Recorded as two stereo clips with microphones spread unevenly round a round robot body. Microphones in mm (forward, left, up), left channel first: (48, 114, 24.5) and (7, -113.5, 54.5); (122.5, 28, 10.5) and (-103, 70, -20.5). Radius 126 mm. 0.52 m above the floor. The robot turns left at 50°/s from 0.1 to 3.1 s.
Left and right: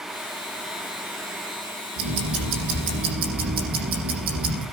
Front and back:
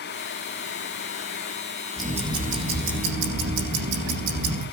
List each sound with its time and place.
2.0 s ticking: 100° right, 8 m; by 4.6 s 155° right, 8 m